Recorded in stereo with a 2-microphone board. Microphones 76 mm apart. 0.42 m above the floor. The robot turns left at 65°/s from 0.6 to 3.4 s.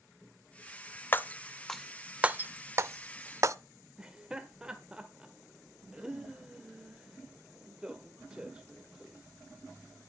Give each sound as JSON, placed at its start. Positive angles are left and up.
{"t": 1.1, "sound": "breaking glass", "side_deg": 30, "distance_m": 0.6}
{"t": 4.0, "sound": "laughter", "side_deg": -10, "distance_m": 1.4}